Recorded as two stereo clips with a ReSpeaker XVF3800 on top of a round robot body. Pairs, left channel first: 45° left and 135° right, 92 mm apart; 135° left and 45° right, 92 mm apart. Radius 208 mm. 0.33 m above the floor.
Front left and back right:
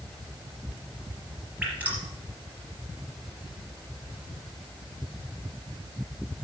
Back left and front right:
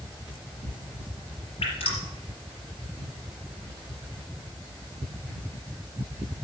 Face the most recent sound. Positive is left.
turn(degrees=150)